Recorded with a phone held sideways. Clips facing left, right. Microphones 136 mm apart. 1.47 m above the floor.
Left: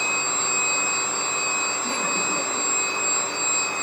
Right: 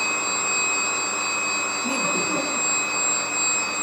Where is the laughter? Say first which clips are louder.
Right 4 dB; 20° right (ahead or behind), 1.5 m.